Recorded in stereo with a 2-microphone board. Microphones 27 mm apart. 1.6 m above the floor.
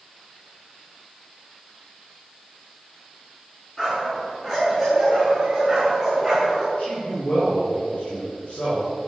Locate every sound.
3.8 s a dog barking: 15° left (ahead or behind), 6.5 m; by 6.7 s 5° right (ahead or behind), 6.5 m
6.8 s a man speaking: 55° left (ahead or behind), 7 m